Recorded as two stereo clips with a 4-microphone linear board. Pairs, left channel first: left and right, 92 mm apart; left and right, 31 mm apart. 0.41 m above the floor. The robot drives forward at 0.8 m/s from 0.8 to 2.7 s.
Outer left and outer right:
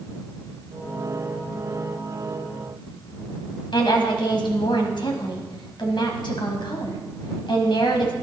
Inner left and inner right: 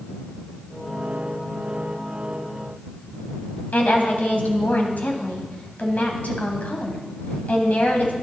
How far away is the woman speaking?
About 2.5 m.